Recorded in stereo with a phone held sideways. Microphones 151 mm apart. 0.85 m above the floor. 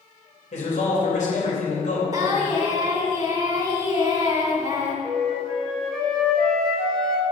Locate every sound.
0.5 s a man speaking: 55° left (ahead or behind), 3 m
2.1 s singing: 25° right (ahead or behind), 1.8 m
5.0 s a flute: 5° left (ahead or behind), 1.8 m